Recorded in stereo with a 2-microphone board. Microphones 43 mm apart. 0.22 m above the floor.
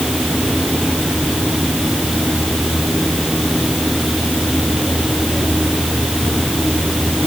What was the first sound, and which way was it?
Only background noise.